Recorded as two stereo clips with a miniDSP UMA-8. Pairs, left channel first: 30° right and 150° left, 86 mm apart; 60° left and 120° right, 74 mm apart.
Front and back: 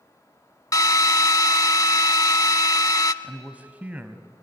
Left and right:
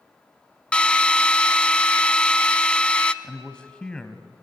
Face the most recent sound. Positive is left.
turn(degrees=115)